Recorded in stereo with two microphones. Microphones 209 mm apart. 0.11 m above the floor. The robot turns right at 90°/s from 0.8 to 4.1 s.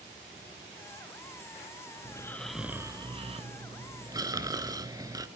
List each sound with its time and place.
2.0 s snoring: 135° left, 0.8 m; by 5.3 s 35° right, 0.8 m